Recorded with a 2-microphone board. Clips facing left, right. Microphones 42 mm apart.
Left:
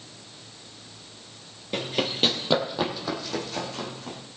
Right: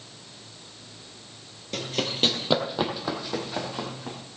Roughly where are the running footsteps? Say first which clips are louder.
Left 2 dB; centre.